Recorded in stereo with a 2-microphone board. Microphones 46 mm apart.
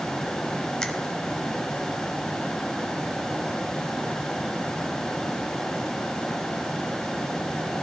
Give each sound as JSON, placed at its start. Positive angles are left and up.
{"t": 0.8, "sound": "a finger snap", "side_deg": 15, "distance_m": 1.0}